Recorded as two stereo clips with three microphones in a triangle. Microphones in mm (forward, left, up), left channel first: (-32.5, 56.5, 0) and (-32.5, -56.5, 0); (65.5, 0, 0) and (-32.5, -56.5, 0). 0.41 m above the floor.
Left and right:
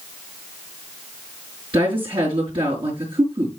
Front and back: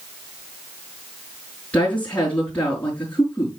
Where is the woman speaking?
50° right, 4 m.